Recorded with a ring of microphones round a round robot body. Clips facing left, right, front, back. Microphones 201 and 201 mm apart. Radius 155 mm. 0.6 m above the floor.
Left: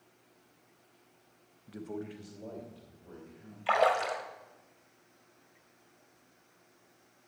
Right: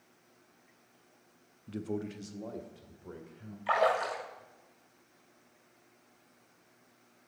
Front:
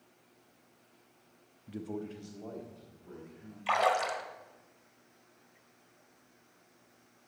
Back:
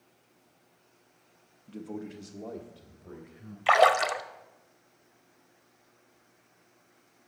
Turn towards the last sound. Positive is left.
turn(degrees=160)